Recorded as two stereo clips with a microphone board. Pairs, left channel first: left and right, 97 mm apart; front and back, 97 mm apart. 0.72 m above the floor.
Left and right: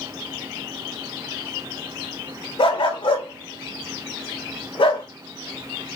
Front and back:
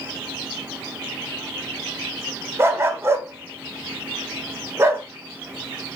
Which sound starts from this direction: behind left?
A dog barking, at 2.6 s.